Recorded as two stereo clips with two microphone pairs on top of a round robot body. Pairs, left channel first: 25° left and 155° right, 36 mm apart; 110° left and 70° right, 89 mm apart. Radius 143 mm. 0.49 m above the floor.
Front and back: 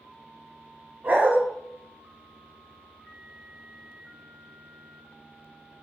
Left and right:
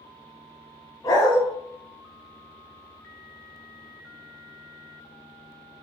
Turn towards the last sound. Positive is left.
turn(degrees=170)